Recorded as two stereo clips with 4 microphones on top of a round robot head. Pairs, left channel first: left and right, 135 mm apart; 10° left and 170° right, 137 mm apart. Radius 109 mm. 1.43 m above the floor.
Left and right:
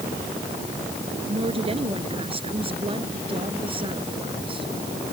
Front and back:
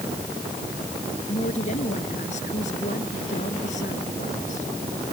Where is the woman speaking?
45° right; by 4.7 s 40° right.